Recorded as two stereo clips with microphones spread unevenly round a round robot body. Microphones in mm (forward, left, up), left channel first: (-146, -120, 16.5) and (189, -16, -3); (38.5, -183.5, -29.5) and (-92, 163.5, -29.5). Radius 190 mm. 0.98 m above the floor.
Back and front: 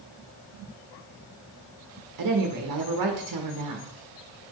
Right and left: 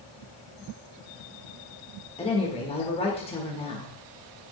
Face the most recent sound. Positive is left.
turn(degrees=5)